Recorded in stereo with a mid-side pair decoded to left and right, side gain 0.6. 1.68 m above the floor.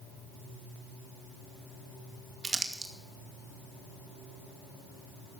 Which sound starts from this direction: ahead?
Crumpling, at 2.4 s.